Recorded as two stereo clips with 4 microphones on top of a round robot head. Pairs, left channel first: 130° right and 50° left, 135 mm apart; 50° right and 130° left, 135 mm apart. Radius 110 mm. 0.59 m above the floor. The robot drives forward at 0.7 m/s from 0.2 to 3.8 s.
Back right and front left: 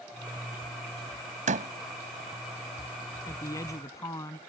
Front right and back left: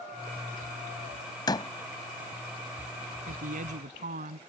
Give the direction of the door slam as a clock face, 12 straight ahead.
12 o'clock.